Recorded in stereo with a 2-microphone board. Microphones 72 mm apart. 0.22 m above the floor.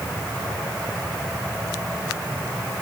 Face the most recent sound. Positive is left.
No sound to turn to.